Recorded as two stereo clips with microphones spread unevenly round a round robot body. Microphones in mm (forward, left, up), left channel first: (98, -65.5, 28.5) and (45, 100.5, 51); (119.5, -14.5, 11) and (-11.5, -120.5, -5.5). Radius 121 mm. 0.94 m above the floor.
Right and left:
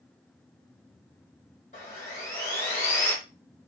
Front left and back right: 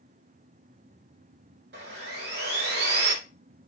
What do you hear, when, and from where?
1.7 s sawing: 135° right, 1.1 m